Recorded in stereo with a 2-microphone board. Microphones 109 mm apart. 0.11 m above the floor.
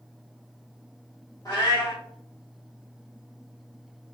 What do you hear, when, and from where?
1.4 s a cat meowing: 35° left (ahead or behind), 1.6 m